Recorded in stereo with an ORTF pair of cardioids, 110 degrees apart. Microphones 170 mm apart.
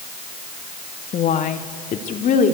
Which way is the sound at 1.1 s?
50° left.